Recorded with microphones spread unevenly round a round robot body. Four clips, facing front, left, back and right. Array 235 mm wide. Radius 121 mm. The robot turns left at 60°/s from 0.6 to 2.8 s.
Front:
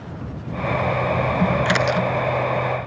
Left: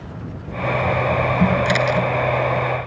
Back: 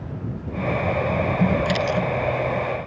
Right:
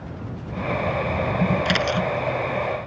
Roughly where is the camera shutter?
Ahead.